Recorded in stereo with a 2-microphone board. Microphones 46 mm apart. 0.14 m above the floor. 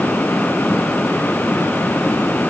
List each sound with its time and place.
Only background noise.